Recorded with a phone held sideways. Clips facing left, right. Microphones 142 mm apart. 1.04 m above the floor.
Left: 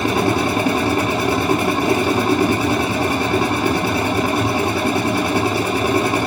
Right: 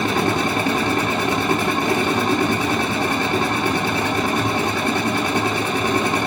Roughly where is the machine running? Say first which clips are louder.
Left 2 dB; centre.